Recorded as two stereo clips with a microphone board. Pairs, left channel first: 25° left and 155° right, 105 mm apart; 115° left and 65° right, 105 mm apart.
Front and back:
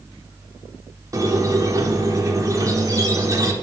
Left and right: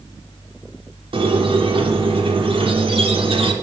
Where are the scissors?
I don't hear scissors.